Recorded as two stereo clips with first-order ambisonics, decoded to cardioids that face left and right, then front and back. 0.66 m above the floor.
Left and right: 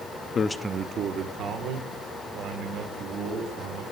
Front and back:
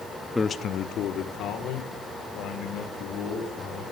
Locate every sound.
0.3 s a man speaking: 75° left, 0.6 m; by 3.8 s 50° right, 5 m